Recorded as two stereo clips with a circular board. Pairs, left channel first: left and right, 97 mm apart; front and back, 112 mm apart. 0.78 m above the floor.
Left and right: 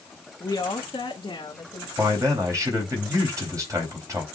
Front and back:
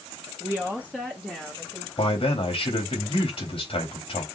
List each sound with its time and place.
0.4 s a woman speaking: 115° left, 1.1 m; by 1.9 s 95° left, 1.7 m
2.0 s a man speaking: 35° right, 3.5 m